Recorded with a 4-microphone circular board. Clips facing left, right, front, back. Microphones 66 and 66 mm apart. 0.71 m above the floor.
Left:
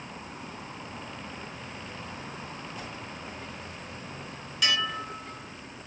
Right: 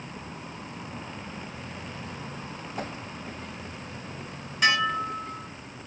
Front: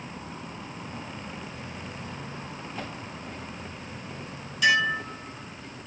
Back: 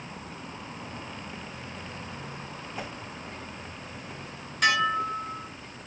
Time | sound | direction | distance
2.8 | a whoosh | 105° right | 0.7 m
4.6 | dishes clattering | 145° right | 4 m